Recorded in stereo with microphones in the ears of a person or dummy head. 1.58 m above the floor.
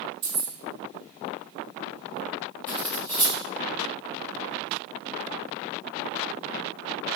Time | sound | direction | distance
0.2 | keys jangling | 60° right (ahead or behind) | 1.3 m
2.7 | cutlery clinking | 5° left (ahead or behind) | 1.1 m